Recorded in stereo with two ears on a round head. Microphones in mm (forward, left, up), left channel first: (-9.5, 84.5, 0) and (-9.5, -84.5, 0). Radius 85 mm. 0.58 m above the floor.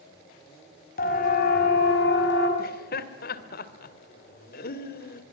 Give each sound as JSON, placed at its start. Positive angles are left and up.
{"t": 1.0, "sound": "a siren", "side_deg": 45, "distance_m": 5.0}
{"t": 2.6, "sound": "laughter", "side_deg": 55, "distance_m": 2.5}